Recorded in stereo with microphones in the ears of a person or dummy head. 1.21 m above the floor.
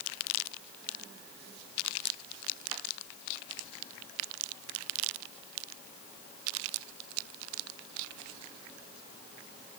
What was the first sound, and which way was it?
Only background noise.